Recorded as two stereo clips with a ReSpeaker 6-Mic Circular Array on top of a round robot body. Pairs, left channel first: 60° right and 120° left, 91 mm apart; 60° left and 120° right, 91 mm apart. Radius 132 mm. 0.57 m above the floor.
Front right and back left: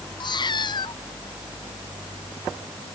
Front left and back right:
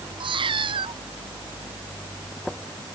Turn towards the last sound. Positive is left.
turn(degrees=-95)